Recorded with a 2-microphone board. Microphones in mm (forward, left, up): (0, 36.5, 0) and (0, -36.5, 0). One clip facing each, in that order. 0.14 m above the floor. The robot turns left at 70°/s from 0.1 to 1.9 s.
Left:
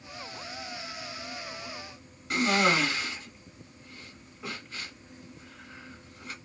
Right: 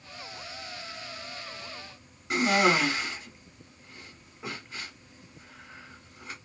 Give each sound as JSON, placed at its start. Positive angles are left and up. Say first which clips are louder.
{"t": 2.3, "sound": "a cough", "louder": "right 1 dB", "side_deg": -20, "distance_m": 1.7}